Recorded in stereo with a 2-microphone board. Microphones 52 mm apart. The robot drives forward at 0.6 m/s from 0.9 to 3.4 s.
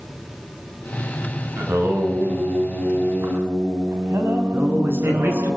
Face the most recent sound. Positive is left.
turn(degrees=-50)  # may be behind; listen again after turning